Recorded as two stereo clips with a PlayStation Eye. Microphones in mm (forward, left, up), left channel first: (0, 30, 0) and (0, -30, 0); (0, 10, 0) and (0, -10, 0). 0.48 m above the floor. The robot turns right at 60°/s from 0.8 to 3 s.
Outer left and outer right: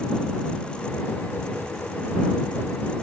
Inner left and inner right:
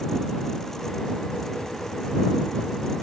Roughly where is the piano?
No piano in this recording.